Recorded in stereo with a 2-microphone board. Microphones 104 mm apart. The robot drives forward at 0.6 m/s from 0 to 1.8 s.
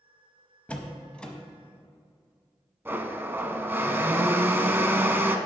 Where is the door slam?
15° left (ahead or behind), 0.7 m; by 1.3 s 10° left (ahead or behind), 0.9 m.